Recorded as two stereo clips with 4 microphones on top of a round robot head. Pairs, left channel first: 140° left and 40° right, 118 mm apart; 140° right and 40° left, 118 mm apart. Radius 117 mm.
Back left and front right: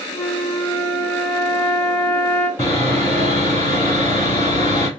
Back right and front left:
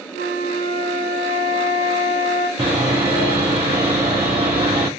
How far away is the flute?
About 1.5 m.